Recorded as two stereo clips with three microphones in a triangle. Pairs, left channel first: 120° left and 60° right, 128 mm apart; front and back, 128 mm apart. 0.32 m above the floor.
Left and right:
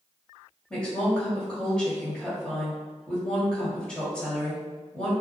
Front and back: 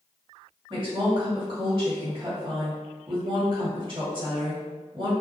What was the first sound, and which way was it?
A woman speaking, 160° right.